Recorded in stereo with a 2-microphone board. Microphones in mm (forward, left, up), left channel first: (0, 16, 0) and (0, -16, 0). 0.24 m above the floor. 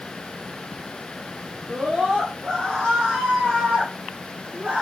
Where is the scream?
50° right (ahead or behind), 5.5 m; by 4.8 s 60° right (ahead or behind), 7.5 m.